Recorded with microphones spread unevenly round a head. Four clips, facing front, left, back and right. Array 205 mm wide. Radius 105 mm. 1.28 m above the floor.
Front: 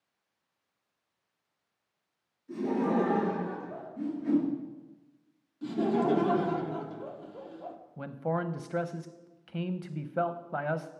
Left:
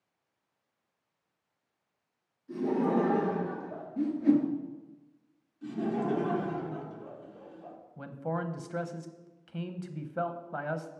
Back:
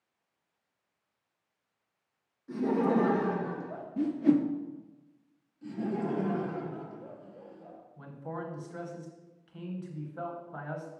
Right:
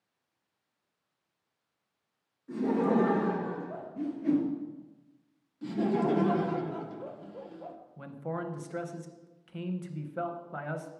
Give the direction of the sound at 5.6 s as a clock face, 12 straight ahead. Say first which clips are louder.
Right 3 dB, front 6 dB; 2 o'clock.